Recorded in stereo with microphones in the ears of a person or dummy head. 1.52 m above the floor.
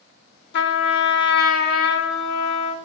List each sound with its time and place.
0.5 s a trumpet: 60° left (ahead or behind), 0.8 m